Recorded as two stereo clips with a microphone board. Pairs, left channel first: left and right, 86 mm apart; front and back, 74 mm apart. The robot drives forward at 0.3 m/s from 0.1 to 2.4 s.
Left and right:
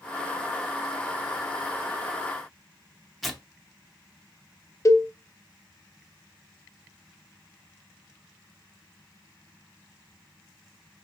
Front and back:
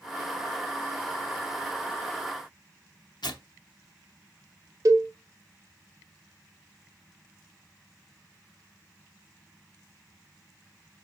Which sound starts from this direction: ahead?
Tearing paper, at 3.2 s.